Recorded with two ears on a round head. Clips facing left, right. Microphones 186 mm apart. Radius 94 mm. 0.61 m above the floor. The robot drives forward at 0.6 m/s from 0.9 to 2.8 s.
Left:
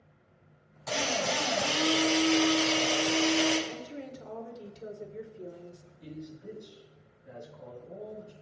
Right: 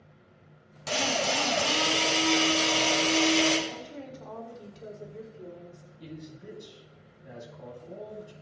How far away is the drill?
About 5 m.